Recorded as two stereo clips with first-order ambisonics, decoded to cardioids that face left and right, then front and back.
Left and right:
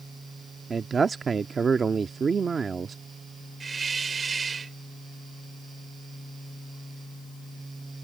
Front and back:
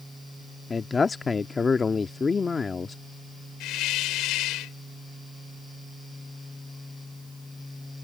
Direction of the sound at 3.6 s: 20° right.